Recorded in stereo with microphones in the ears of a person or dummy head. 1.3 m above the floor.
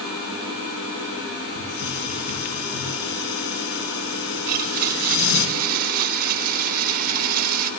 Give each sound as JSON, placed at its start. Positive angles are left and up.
{"t": 1.6, "sound": "a hiss", "side_deg": 80, "distance_m": 6.0}
{"t": 4.5, "sound": "a blender", "side_deg": -55, "distance_m": 3.0}